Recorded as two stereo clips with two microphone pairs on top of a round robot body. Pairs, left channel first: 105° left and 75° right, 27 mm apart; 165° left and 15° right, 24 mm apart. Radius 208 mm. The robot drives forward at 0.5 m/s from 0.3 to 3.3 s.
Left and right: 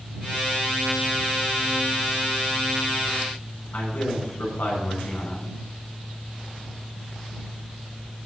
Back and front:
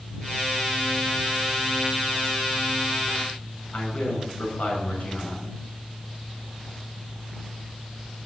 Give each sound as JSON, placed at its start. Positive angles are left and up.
{"t": 3.7, "sound": "a man speaking", "azimuth_deg": 130, "distance_m": 6.5}